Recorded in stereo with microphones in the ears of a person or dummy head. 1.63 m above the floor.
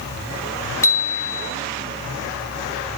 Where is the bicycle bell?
15° left (ahead or behind), 3 m.